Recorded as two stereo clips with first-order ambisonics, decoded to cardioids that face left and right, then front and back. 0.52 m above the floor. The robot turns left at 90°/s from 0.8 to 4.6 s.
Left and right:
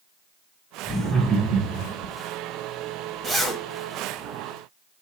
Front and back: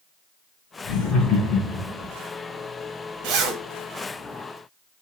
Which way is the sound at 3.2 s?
170° right.